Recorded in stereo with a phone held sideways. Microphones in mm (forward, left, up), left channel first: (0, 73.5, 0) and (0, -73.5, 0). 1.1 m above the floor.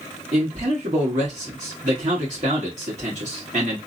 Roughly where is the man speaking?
Right.